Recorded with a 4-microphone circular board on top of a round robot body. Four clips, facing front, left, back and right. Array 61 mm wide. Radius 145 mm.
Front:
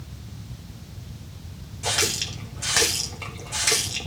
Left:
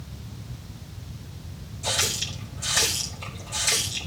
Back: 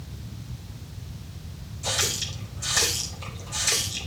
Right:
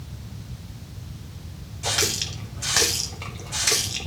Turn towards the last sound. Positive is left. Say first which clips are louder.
# right 2 dB, front 3 dB
turn(degrees=-35)